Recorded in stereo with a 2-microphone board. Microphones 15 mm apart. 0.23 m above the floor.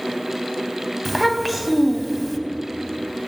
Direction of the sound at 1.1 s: 5° right (ahead or behind).